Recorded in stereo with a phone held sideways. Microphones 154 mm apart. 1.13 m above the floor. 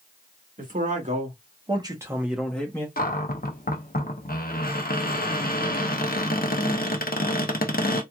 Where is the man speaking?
60° right (ahead or behind), 1.8 m; by 2.9 s 20° left (ahead or behind), 1.2 m.